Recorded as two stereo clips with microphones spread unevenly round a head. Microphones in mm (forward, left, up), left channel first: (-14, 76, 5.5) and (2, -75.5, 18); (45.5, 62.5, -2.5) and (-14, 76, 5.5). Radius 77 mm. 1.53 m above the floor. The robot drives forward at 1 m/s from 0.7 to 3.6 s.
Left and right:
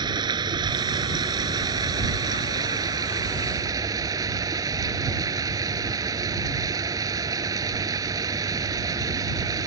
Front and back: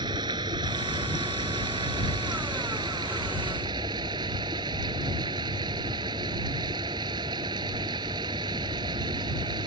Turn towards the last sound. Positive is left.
turn(degrees=-155)